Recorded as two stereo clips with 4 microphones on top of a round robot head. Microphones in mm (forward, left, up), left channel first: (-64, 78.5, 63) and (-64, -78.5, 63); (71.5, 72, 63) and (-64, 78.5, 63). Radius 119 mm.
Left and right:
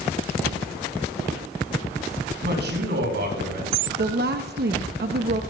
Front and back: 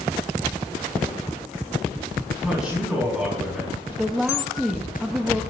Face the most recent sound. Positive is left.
turn(degrees=-95)